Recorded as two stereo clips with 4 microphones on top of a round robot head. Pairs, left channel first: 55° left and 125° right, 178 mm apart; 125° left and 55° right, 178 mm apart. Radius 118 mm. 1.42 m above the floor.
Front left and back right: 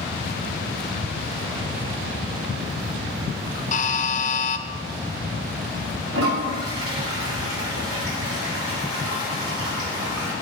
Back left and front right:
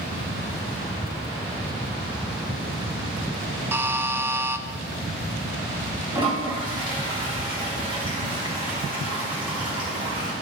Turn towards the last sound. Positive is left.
turn(degrees=-120)